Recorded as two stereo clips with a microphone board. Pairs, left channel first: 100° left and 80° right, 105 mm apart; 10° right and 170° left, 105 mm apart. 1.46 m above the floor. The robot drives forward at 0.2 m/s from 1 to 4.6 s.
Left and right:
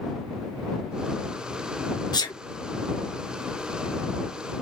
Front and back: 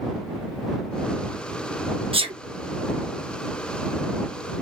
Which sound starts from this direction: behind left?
A sneeze, at 2.1 s.